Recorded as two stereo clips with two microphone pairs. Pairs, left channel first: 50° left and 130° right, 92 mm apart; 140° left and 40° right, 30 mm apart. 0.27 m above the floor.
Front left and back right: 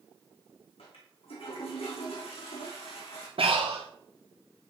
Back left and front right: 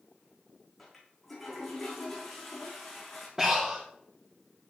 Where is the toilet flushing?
55° left, 8.5 m.